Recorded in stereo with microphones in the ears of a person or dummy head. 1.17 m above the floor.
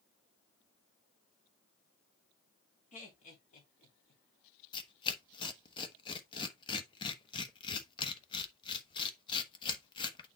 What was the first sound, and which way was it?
Laughter, 40° left (ahead or behind).